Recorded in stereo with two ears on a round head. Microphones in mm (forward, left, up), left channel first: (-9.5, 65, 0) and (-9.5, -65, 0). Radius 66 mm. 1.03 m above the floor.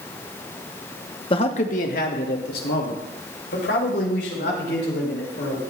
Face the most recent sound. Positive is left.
turn(degrees=85)